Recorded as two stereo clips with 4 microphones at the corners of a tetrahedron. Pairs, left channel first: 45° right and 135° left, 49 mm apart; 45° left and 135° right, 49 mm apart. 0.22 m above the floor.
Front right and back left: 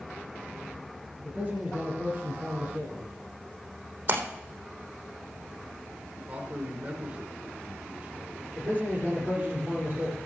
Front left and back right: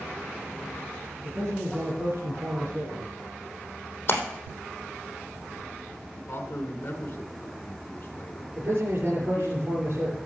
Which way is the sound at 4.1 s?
90° left.